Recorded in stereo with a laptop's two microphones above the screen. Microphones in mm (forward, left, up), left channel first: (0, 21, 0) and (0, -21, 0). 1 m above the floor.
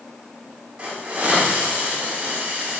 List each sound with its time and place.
0.8 s a hiss: 25° right (ahead or behind), 4.5 m